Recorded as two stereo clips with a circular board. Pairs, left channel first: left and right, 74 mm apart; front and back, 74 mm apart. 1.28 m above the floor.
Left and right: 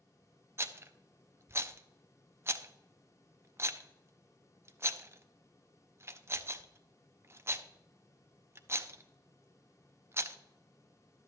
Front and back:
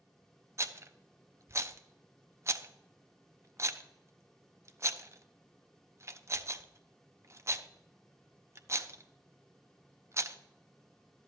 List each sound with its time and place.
0.6 s a rattle: 140° right, 0.5 m